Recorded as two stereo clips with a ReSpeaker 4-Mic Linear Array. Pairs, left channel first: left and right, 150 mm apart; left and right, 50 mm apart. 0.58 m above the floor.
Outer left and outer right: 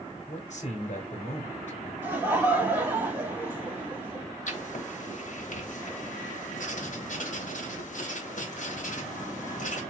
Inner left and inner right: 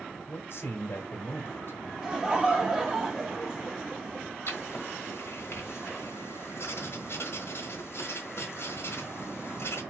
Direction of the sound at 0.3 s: 55° left (ahead or behind).